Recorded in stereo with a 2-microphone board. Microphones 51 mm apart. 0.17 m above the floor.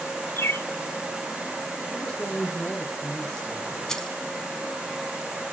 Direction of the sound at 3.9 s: 15° left (ahead or behind).